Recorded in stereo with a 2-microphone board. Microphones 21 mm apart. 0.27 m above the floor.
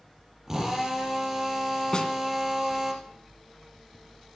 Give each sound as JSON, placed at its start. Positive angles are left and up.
{"t": 0.5, "sound": "a drill", "side_deg": -15, "distance_m": 5.0}
{"t": 1.9, "sound": "a snare drum", "side_deg": 35, "distance_m": 2.0}